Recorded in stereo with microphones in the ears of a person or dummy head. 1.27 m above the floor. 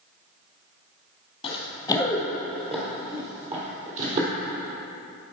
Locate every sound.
1.4 s running footsteps: 30° left (ahead or behind), 2.0 m; by 4.3 s 45° right (ahead or behind), 2.5 m